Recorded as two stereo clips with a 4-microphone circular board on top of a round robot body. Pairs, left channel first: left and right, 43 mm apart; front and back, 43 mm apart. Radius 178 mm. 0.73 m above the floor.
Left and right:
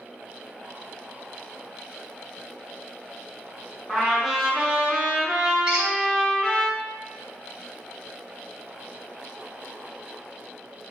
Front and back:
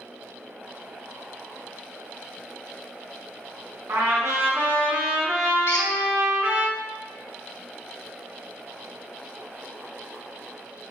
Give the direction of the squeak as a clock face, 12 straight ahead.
1 o'clock.